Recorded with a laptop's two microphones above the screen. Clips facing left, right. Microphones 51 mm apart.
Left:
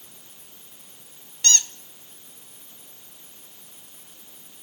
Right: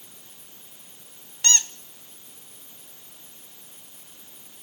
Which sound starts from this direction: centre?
A squeak, at 1.4 s.